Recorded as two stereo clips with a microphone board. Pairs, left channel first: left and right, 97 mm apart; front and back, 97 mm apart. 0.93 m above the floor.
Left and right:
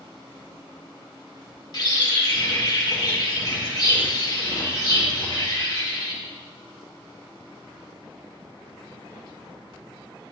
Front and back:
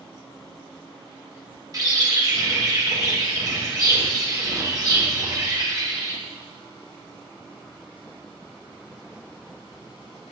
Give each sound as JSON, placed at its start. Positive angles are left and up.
{"t": 1.7, "sound": "a bird", "azimuth_deg": 130, "distance_m": 2.0}